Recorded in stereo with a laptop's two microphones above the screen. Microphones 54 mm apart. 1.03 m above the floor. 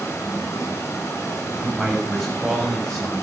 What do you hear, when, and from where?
0.0 s running water: 65° left (ahead or behind), 5.5 m
1.6 s a man speaking: 5° left (ahead or behind), 7 m